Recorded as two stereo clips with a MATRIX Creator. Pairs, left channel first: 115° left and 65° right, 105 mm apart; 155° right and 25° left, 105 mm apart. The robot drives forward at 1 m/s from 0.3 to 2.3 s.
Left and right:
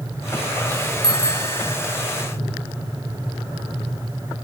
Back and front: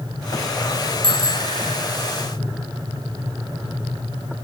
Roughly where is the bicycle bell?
Ahead left.